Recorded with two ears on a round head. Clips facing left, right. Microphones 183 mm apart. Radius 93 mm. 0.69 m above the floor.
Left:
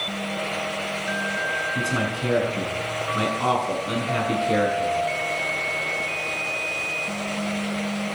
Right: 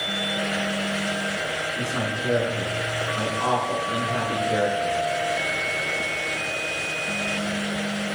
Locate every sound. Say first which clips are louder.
1.8 s a man speaking: left 4 dB; 45° left (ahead or behind), 8 m